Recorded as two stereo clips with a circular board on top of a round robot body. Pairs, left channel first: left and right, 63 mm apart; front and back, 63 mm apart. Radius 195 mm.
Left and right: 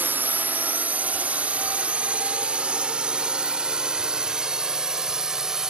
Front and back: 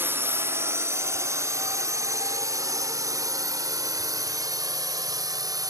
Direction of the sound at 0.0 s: 140° right.